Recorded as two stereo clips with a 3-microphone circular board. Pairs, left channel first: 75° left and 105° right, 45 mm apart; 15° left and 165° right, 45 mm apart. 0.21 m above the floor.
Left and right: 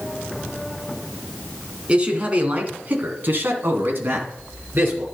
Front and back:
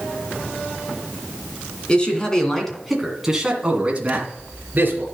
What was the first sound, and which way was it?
A man speaking, 45° right.